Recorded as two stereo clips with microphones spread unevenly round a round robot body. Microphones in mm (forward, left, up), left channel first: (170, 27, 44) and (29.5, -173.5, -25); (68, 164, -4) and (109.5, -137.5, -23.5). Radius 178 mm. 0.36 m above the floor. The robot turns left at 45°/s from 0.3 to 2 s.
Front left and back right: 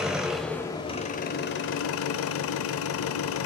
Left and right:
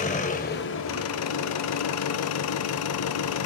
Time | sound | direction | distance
0.0 | an engine running | 160° left | 0.7 m